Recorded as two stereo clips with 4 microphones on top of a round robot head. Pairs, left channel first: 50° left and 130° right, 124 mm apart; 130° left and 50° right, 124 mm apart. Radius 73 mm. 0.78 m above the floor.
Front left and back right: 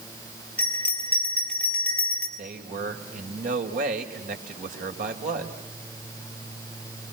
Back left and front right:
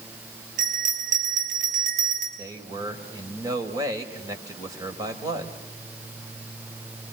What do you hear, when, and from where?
0.6 s a bell: 30° right, 5.5 m
2.4 s a man speaking: 110° right, 3.5 m